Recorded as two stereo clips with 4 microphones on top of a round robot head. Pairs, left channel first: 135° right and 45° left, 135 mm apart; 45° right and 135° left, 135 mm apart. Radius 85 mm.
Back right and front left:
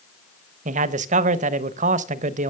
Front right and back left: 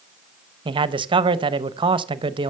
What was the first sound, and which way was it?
A man speaking, 80° left.